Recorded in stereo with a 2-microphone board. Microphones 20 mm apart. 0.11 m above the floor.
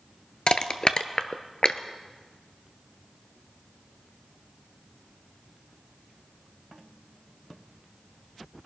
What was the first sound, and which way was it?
Crushing, 50° left (ahead or behind).